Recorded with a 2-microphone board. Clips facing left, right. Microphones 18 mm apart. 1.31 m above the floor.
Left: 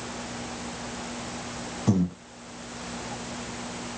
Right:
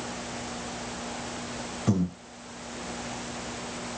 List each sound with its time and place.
1.9 s breathing: centre (ahead or behind), 0.6 m